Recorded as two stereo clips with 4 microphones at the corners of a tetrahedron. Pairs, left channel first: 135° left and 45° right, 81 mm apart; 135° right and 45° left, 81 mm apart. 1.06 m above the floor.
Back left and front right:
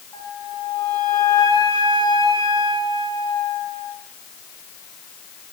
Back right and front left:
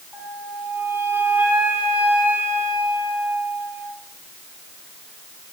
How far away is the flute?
About 4.5 m.